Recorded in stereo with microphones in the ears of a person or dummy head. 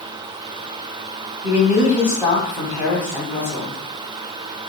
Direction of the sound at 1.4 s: 15° right (ahead or behind).